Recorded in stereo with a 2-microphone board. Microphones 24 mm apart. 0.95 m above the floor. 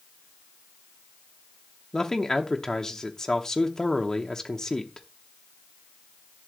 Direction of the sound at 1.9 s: 20° left (ahead or behind).